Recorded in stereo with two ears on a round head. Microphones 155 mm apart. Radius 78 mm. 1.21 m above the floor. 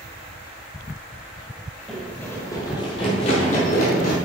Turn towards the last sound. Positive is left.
turn(degrees=55)  # may be behind; listen again after turning